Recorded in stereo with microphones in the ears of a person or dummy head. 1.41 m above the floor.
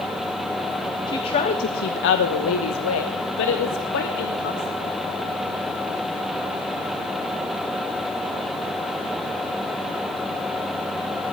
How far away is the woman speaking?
About 1.5 m.